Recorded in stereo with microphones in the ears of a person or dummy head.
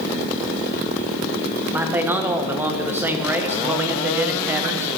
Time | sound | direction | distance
1.7 | a man speaking | 15° right (ahead or behind) | 0.8 m